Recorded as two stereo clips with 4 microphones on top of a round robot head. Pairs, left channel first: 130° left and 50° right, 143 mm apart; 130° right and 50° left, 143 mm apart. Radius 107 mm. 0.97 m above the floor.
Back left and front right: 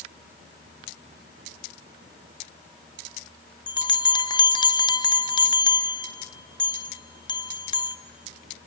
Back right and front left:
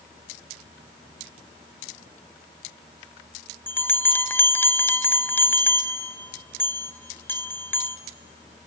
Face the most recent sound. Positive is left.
turn(degrees=165)